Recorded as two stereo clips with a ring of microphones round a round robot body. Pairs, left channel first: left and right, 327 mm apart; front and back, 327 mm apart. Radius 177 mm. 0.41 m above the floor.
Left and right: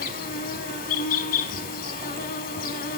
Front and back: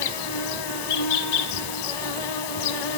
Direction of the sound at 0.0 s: 25° left.